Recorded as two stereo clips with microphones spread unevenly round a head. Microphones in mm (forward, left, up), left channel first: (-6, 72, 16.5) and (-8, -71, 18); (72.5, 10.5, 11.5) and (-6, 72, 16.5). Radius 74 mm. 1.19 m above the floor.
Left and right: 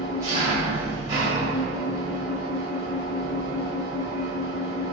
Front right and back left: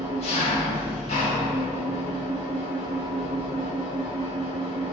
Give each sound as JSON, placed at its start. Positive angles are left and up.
{"t": 0.0, "sound": "an engine running", "azimuth_deg": -20, "distance_m": 1.3}